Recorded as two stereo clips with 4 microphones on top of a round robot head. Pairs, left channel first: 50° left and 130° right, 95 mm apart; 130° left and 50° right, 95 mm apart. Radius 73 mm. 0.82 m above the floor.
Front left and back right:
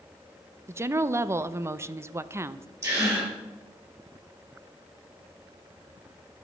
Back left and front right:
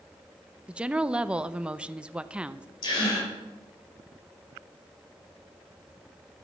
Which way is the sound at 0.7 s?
120° right.